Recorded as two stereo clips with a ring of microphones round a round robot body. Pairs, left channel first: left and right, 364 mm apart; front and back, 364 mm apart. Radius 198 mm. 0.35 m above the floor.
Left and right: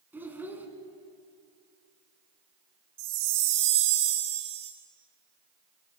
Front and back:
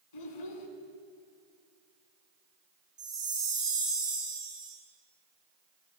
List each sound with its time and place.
0.1 s a child speaking: 5° right, 3 m
3.0 s a chime: 100° right, 4.5 m